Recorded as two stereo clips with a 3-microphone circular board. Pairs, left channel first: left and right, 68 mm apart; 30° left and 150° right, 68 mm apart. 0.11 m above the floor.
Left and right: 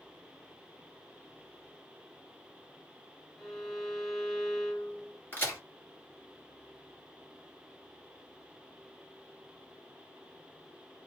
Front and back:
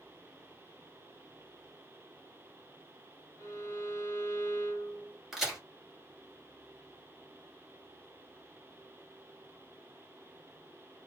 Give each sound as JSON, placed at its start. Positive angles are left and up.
{"t": 3.4, "sound": "a violin", "azimuth_deg": 15, "distance_m": 0.9}
{"t": 5.3, "sound": "a crack", "azimuth_deg": 120, "distance_m": 1.7}